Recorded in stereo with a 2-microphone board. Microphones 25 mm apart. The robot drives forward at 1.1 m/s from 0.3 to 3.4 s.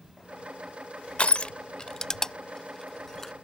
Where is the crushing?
50° left (ahead or behind); by 3.3 s 10° left (ahead or behind).